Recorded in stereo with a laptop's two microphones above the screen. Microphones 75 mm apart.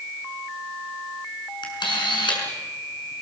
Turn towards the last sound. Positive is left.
turn(degrees=80)